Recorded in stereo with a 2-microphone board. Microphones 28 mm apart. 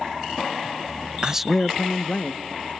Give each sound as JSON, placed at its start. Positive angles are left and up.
{"t": 1.2, "sound": "a man speaking", "side_deg": -25, "distance_m": 0.6}